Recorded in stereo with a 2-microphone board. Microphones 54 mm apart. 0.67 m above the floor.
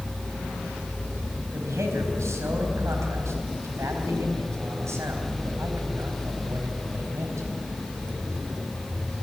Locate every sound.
1.5 s a man speaking: 60° right (ahead or behind), 4 m